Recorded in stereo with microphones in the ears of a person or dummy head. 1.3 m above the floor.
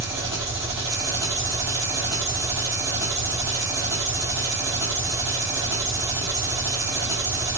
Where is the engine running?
20° right (ahead or behind), 1.3 m.